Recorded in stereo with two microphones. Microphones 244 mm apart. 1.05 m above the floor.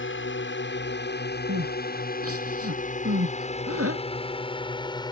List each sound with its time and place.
0.0 s a drone: 55° left (ahead or behind); by 5.1 s 15° left (ahead or behind)
1.5 s crying: 75° right (ahead or behind)